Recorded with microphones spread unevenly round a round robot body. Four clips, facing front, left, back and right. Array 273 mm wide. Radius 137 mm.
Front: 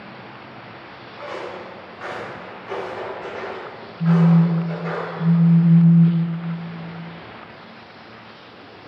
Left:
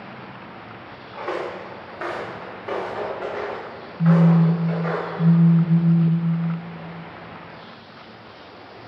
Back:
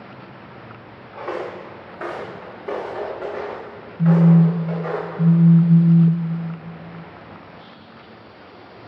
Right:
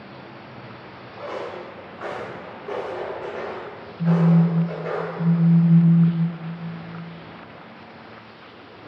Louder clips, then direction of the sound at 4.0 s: Left 2 dB, back 2 dB; 175° right.